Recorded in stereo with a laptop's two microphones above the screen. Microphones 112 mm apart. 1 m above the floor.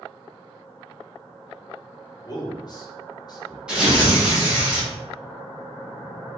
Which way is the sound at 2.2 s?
40° left (ahead or behind).